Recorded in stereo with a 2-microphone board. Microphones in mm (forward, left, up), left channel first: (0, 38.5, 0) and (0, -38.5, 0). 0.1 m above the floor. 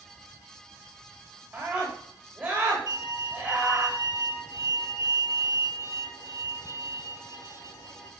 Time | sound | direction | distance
1.5 | a scream | 15° right (ahead or behind) | 8.5 m
2.9 | a violin | 70° left (ahead or behind) | 7 m